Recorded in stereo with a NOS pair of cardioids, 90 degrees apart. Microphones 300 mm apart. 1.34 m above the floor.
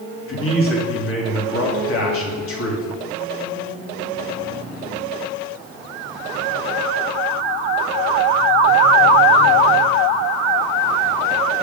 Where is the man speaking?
45° left, 3 m.